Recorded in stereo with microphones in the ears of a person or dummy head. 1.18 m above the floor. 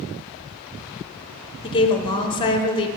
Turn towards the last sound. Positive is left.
turn(degrees=25)  # may be behind; listen again after turning